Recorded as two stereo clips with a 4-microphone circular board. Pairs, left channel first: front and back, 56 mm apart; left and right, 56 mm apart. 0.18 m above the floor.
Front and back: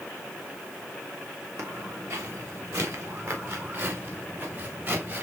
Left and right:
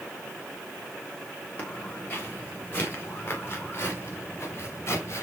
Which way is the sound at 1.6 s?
150° left.